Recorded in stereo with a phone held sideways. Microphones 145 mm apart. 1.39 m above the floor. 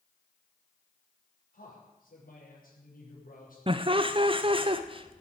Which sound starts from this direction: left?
A man speaking, at 1.5 s.